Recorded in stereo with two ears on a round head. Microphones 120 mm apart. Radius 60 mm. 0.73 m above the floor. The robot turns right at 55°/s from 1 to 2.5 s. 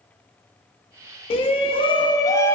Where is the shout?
85° left, 1.0 m; by 2.5 s 150° left, 1.0 m.